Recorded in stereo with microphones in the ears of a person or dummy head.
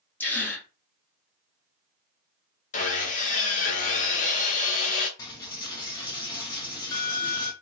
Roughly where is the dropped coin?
Left.